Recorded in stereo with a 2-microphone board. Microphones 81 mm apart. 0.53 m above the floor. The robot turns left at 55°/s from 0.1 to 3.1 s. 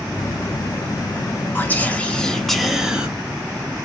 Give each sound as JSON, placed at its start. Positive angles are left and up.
{"t": 1.6, "sound": "whispering", "side_deg": 25, "distance_m": 0.8}